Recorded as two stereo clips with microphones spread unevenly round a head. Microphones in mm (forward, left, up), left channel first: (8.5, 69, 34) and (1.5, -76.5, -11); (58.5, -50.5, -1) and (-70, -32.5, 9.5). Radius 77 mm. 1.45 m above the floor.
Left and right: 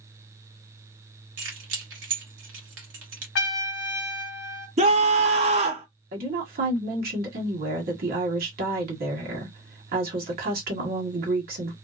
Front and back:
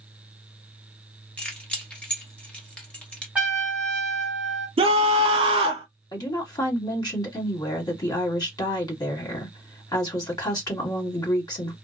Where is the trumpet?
90° left, 0.8 m.